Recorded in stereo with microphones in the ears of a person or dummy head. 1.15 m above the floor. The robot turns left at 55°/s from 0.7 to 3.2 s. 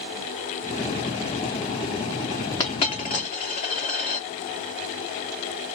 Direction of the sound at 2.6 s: 20° left (ahead or behind).